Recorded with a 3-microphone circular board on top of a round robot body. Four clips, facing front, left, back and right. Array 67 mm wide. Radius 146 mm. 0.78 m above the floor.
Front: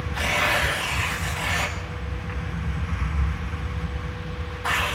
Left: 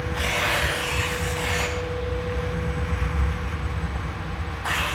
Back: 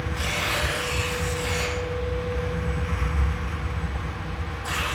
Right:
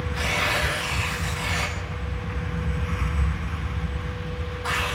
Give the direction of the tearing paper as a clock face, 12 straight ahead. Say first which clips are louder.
Even, front 6 dB; 11 o'clock.